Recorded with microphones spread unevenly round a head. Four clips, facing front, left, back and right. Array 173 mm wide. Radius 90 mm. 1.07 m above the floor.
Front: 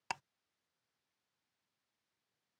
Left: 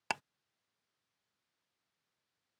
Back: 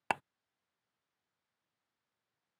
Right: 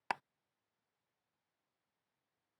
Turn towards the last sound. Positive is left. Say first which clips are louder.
# left 1 dB, back 8 dB
turn(degrees=165)